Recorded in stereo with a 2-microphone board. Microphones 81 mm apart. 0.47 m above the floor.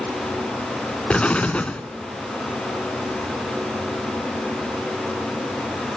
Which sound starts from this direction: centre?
An explosion, at 1.1 s.